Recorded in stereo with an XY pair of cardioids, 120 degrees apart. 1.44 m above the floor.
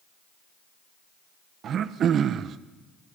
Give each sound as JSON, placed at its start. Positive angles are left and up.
{"t": 1.6, "sound": "throat clearing", "azimuth_deg": -55, "distance_m": 1.0}